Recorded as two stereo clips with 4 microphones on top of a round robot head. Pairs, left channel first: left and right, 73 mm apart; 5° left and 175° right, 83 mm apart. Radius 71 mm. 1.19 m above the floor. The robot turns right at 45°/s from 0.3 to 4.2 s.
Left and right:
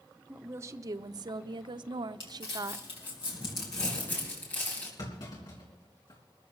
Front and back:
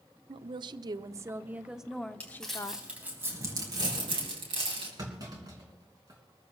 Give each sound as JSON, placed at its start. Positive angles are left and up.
{"t": 0.3, "sound": "a woman speaking", "azimuth_deg": -160, "distance_m": 0.6}
{"t": 2.2, "sound": "crumpling", "azimuth_deg": 80, "distance_m": 4.5}
{"t": 5.0, "sound": "a clunk", "azimuth_deg": 140, "distance_m": 4.0}